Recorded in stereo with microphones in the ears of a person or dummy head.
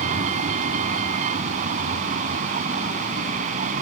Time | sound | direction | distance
0.0 | a vehicle | 40° right (ahead or behind) | ?